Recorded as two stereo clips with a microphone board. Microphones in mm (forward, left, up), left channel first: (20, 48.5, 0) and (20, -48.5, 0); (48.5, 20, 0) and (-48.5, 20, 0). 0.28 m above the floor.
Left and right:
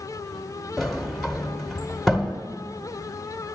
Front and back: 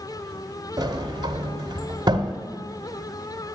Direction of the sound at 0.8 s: Straight behind.